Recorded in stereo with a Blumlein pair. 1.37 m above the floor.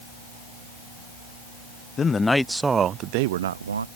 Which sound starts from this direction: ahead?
A man speaking, at 2.0 s.